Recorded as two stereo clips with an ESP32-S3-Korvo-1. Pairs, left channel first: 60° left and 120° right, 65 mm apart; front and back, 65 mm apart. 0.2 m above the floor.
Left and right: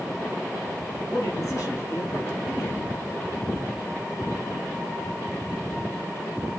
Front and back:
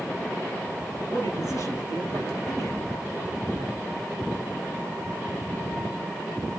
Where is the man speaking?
20° left, 4 m; by 2.9 s 15° left, 3 m.